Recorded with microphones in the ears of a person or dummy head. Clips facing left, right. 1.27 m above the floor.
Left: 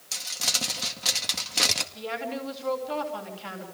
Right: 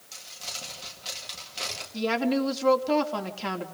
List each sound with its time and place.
0.1 s crumpling: 80° left, 2 m
1.9 s a woman speaking: 70° right (ahead or behind), 3.5 m